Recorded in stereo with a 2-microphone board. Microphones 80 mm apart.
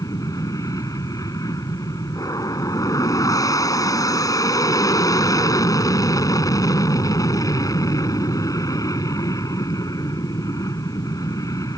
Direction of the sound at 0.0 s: 45° left (ahead or behind).